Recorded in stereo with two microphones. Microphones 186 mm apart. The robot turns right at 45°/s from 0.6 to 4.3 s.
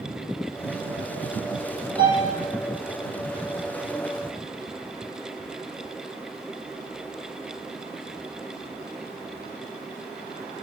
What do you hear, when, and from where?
2.0 s a piano: 35° right (ahead or behind), 4.5 m; by 2.3 s 20° right (ahead or behind), 4.5 m